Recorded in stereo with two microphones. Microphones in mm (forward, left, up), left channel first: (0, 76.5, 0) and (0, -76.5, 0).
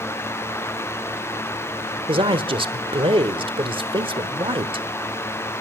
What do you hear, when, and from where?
2.1 s a man speaking: 35° right (ahead or behind), 1.1 m